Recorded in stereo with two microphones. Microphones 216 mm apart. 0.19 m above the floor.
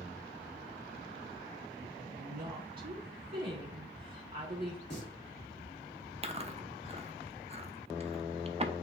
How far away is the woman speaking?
About 1.7 m.